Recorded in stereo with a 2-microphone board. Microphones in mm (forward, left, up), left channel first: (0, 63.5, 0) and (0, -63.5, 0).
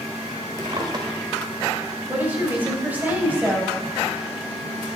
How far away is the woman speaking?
About 3.5 m.